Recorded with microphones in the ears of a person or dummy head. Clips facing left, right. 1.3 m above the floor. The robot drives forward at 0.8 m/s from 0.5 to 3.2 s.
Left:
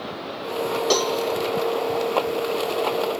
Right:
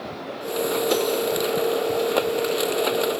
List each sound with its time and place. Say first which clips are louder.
0.9 s a cowbell: left 1 dB; 85° left, 2 m; by 1.1 s 80° left, 2.5 m